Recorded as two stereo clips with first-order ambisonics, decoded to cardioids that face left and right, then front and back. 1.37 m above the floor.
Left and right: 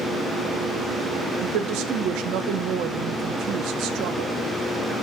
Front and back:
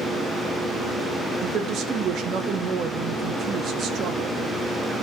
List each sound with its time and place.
1.4 s a woman speaking: 125° right, 0.8 m